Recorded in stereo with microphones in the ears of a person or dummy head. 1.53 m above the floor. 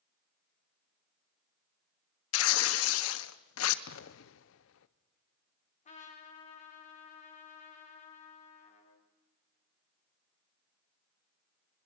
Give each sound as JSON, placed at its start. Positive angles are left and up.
{"t": 2.3, "sound": "tearing paper", "side_deg": 80, "distance_m": 1.0}
{"t": 3.9, "sound": "an explosion", "side_deg": 70, "distance_m": 0.8}
{"t": 5.8, "sound": "a trumpet", "side_deg": 40, "distance_m": 3.5}